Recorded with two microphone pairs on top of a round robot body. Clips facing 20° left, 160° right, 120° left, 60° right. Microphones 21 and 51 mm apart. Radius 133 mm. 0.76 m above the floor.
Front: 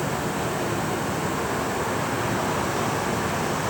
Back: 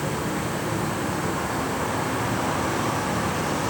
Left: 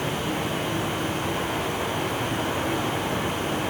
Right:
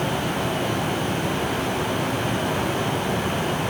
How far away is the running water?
About 10 m.